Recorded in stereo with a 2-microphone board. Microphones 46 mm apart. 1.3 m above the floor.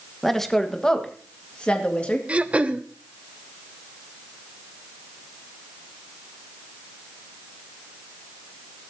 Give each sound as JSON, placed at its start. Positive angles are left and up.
{"t": 0.2, "sound": "a woman speaking", "side_deg": 5, "distance_m": 1.2}
{"t": 2.3, "sound": "throat clearing", "side_deg": -25, "distance_m": 0.6}